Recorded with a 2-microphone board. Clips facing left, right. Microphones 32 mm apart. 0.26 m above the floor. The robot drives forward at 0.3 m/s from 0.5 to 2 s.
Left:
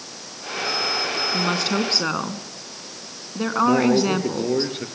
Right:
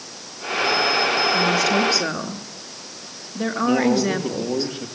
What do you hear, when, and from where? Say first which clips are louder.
1.3 s a woman speaking: right 4 dB; 50° left (ahead or behind), 3 m; by 4.7 s 45° left (ahead or behind), 3.5 m
3.6 s a man speaking: even; 60° left (ahead or behind), 5 m